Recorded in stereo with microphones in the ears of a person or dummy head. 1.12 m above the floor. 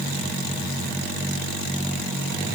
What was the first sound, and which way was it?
Only background noise.